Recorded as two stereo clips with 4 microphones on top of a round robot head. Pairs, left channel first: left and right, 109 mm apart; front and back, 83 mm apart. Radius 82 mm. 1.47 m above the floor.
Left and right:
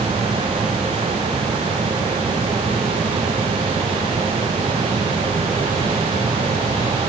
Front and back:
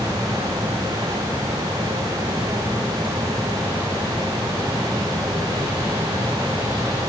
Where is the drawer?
No drawer in this recording.